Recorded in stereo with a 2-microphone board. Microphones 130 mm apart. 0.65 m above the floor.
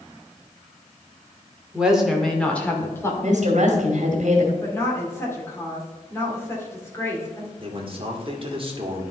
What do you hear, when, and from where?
1.7 s a woman speaking: 10° right (ahead or behind), 1.9 m; by 3.1 s 20° left (ahead or behind), 2 m
3.2 s a woman speaking: 65° right (ahead or behind), 2 m
4.6 s a woman speaking: 20° left (ahead or behind), 2.5 m
7.6 s a man speaking: 40° right (ahead or behind), 1.8 m